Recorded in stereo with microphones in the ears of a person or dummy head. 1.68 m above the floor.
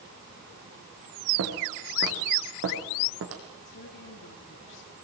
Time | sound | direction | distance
1.4 | footsteps | 70° right (ahead or behind) | 5 m
3.6 | a woman speaking | 65° left (ahead or behind) | 3.5 m